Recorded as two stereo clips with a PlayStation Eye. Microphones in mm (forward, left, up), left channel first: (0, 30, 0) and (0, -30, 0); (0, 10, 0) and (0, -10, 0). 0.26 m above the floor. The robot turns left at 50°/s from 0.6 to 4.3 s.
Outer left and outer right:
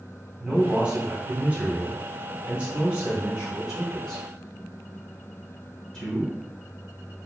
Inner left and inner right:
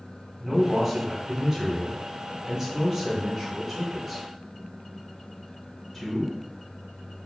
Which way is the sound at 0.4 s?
15° right (ahead or behind).